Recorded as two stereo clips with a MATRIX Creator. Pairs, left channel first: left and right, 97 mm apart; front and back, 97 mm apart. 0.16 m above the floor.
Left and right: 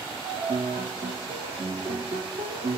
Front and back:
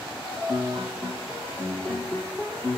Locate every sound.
0.2 s a piano: 85° right, 1.3 m